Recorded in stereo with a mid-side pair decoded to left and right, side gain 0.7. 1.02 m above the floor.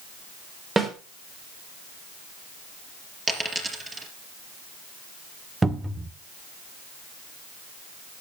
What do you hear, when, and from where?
0.8 s a snare drum: 20° right, 3.5 m
3.3 s a dropped coin: 15° right, 4 m
5.6 s a cupboard door: 15° right, 1.0 m